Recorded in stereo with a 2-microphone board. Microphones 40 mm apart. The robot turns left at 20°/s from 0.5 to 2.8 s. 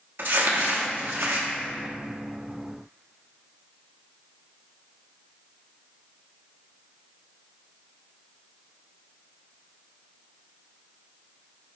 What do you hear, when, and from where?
0.2 s crumpling: 65° right (ahead or behind), 0.9 m; by 1.5 s 75° right (ahead or behind), 0.9 m